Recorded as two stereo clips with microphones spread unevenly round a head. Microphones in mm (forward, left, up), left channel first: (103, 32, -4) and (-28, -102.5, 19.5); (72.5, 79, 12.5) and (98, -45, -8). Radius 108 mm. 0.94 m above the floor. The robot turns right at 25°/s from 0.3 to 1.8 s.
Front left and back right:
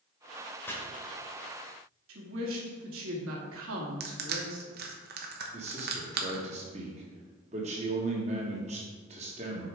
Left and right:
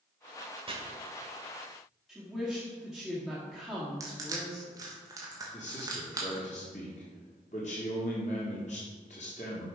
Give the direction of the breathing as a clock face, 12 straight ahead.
I don't hear breathing.